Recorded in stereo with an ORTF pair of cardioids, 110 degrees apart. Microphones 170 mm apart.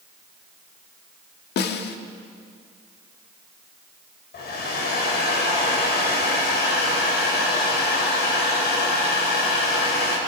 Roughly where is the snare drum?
Ahead left.